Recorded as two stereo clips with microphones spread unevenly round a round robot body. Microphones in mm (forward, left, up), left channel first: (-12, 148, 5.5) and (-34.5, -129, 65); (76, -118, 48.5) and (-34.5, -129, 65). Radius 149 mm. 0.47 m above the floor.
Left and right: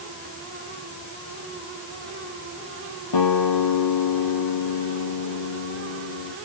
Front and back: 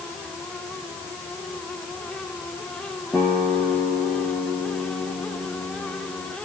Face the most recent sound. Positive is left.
turn(degrees=95)